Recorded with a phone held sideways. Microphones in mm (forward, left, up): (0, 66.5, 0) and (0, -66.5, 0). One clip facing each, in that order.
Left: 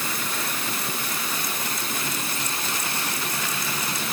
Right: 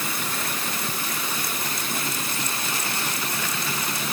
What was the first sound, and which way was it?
Only background noise.